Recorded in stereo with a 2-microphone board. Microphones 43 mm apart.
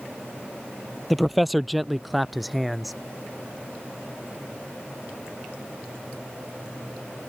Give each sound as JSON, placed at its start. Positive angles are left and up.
{"t": 1.1, "sound": "a man speaking", "side_deg": 0}